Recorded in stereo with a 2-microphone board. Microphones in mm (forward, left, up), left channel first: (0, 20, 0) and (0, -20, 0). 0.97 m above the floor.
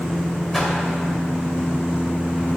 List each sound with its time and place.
0.5 s a whoosh: 5° left (ahead or behind), 2.0 m